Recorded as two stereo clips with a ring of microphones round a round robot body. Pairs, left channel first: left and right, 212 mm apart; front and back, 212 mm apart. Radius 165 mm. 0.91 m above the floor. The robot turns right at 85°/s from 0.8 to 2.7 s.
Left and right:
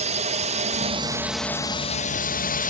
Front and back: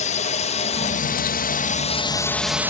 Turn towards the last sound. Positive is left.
turn(degrees=105)